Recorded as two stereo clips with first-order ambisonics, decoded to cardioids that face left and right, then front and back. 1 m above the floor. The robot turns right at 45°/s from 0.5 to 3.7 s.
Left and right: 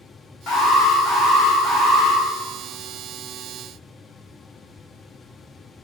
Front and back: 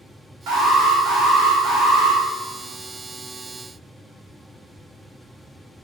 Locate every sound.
0.5 s an alarm: 145° left, 1.3 m; by 2.2 s 135° right, 1.3 m